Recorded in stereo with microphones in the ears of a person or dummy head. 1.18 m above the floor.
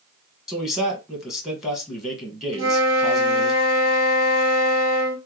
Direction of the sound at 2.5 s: 75° right (ahead or behind).